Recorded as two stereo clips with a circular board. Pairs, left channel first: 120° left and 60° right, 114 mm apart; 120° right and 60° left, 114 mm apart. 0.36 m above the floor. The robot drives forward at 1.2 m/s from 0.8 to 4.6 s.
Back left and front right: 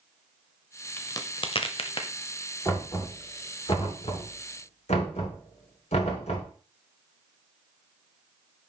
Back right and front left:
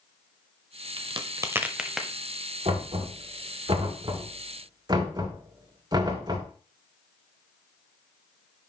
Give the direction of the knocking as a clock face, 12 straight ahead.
10 o'clock.